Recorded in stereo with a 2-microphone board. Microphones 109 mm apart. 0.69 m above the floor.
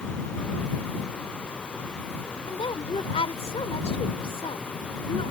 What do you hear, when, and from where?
2.5 s a woman speaking: 55° left (ahead or behind)